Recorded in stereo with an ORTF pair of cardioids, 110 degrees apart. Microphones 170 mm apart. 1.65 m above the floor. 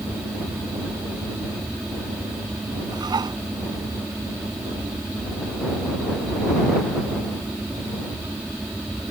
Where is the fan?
5° right.